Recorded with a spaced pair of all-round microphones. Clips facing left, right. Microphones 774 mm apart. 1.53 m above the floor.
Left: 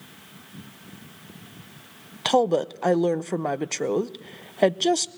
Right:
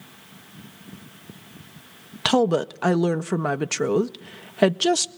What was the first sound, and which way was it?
A woman speaking, 45° right (ahead or behind).